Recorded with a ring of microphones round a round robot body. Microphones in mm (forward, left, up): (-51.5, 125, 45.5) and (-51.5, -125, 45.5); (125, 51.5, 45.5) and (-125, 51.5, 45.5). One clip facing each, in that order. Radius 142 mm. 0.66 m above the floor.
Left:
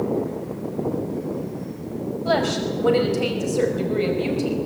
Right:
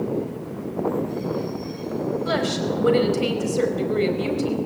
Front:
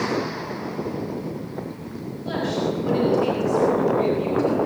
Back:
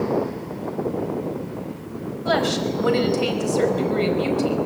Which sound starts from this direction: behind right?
A woman speaking, at 2.2 s.